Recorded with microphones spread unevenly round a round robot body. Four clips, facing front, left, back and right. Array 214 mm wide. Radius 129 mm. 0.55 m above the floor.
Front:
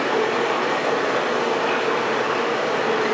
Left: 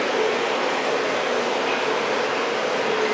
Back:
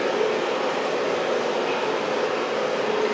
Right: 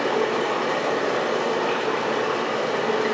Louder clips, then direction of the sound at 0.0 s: Even, front 2 dB; 55° right.